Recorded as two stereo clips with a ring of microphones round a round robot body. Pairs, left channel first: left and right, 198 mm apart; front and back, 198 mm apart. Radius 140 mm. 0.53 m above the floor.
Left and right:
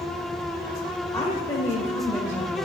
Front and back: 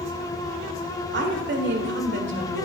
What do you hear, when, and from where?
1.1 s a woman speaking: 165° left, 1.7 m